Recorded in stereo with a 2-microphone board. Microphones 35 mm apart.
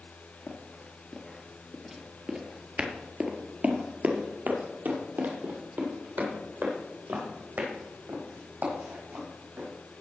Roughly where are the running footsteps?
Left.